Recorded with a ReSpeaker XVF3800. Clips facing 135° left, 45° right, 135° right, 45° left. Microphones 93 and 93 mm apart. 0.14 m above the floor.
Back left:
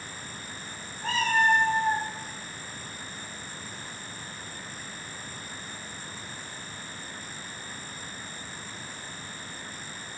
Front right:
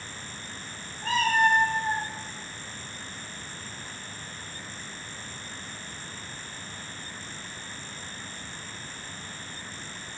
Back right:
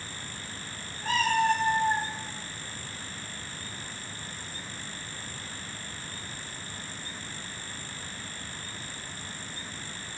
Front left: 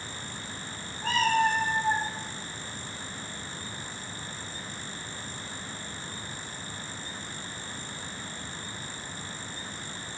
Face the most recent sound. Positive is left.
turn(degrees=15)